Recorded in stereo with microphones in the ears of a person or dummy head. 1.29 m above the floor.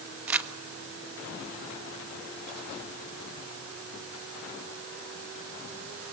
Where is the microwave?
I don't hear a microwave.